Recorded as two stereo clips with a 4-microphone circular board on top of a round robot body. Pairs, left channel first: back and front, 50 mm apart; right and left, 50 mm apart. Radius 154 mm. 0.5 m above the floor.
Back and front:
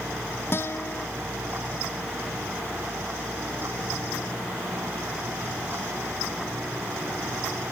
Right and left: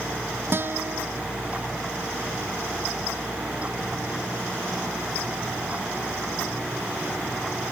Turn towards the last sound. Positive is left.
turn(degrees=135)